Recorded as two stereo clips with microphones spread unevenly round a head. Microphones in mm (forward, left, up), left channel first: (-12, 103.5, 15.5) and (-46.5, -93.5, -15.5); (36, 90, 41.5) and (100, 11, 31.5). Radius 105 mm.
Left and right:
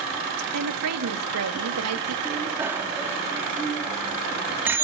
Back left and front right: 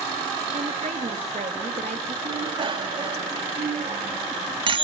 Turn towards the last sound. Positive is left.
turn(degrees=-15)